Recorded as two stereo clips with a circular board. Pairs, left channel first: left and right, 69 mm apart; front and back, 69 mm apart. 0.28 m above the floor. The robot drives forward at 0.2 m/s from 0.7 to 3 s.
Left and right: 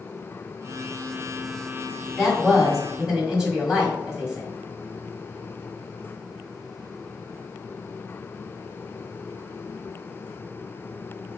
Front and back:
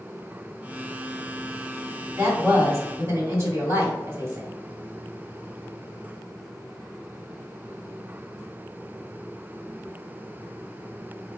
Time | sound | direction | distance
2.2 | a woman speaking | 170° right | 1.9 m